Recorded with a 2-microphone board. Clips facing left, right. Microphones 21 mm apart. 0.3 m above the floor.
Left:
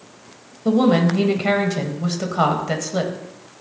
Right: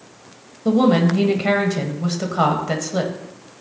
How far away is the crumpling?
No crumpling in this recording.